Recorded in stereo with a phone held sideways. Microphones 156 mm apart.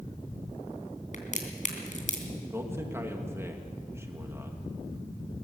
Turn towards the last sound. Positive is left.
turn(degrees=-15)  # may be behind; listen again after turning